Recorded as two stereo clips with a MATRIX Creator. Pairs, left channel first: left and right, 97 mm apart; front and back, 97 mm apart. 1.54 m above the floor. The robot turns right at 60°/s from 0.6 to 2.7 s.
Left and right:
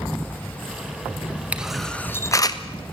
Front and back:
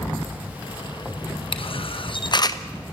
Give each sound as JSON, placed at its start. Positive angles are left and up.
{"t": 1.5, "sound": "a camera shutter", "azimuth_deg": -15, "distance_m": 1.1}